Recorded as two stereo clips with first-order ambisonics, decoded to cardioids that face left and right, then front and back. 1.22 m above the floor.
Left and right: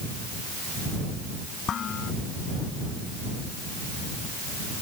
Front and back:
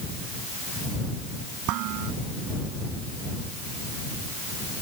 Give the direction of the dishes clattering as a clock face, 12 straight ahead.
7 o'clock.